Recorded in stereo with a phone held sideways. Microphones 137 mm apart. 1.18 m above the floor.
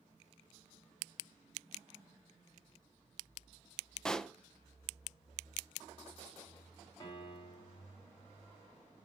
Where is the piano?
35° left (ahead or behind), 4.5 m.